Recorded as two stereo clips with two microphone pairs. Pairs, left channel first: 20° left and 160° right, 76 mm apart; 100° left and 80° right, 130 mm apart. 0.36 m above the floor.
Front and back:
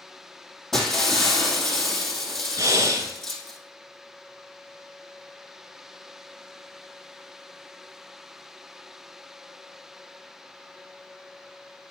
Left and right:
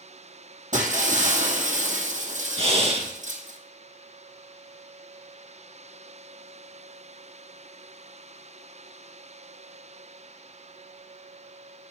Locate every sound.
0.7 s breaking glass: 65° right, 2.5 m
2.6 s breathing: 120° right, 2.5 m